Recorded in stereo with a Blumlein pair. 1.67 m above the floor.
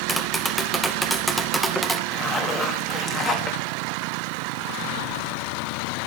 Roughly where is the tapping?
Ahead.